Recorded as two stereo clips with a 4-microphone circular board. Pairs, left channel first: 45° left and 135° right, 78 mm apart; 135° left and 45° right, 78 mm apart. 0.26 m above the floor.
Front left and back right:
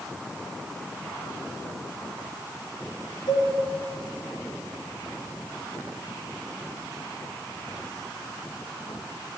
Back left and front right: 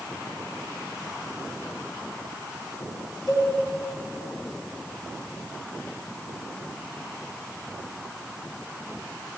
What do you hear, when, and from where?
3.3 s a cowbell: 40° left, 1.6 m